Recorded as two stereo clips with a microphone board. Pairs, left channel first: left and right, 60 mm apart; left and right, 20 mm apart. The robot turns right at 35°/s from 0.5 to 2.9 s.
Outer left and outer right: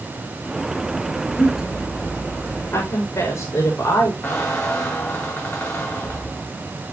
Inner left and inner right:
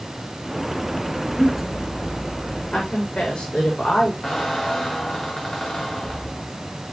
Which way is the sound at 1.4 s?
80° left.